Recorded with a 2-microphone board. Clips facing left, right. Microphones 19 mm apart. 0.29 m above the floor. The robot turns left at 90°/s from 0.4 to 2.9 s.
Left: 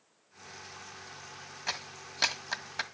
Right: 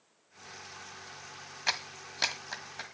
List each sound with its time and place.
1.7 s a clap: 35° right (ahead or behind), 1.7 m; by 2.9 s 40° left (ahead or behind), 1.7 m